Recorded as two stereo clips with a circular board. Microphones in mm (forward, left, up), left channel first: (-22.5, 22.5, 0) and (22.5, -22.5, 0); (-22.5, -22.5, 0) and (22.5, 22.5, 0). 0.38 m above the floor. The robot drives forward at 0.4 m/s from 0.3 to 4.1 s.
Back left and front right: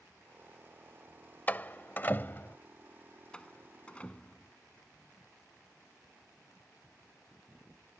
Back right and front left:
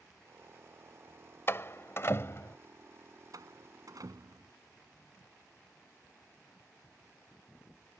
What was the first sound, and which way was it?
A door slam, 170° right.